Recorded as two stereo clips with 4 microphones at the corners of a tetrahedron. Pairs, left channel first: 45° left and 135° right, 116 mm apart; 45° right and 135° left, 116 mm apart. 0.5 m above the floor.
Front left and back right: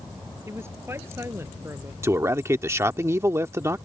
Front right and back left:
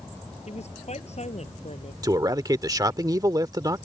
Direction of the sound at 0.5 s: 65° right.